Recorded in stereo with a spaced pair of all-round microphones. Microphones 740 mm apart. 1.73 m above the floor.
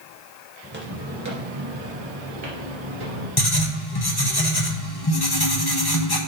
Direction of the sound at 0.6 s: 10° right (ahead or behind).